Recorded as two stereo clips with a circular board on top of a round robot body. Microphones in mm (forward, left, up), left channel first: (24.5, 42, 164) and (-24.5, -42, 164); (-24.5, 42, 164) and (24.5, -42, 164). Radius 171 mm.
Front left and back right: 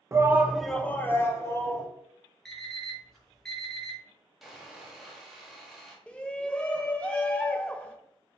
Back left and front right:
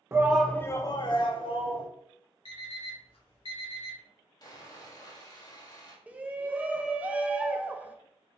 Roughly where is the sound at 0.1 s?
Right.